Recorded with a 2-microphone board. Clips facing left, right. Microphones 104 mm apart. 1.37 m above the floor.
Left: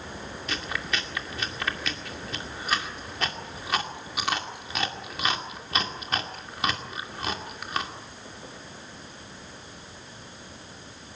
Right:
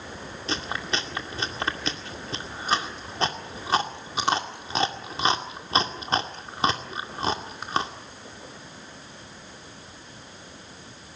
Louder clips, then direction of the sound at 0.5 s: Right 3 dB; 30° right (ahead or behind).